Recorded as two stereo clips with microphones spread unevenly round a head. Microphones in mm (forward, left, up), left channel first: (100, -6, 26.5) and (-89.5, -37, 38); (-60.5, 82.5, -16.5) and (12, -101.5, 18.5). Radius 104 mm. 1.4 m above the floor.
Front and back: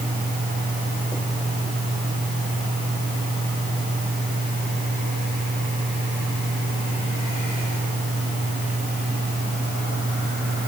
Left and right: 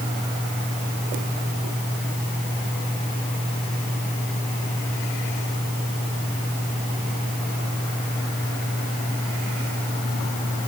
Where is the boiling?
No boiling in this recording.